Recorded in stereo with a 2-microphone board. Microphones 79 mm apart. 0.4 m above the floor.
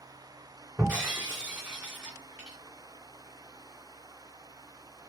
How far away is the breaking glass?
About 3 m.